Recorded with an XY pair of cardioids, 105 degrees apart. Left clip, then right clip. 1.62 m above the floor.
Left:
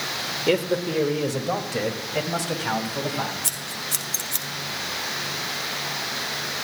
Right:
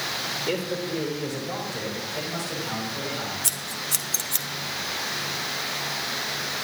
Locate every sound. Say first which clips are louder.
0.5 s a man speaking: left 5 dB; 45° left, 1.6 m; by 3.3 s 75° left, 4 m
3.4 s scissors: even; 15° right, 1.3 m